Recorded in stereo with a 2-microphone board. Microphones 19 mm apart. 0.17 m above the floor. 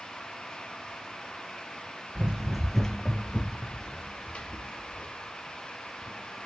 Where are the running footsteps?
45° right (ahead or behind), 0.8 m; by 6.5 s 85° left, 4 m.